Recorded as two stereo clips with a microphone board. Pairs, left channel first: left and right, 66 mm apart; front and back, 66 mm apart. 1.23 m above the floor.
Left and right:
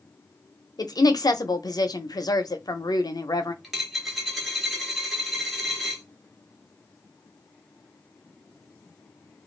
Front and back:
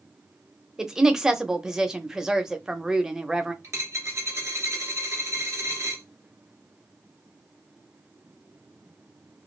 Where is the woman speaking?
100° left, 0.5 m.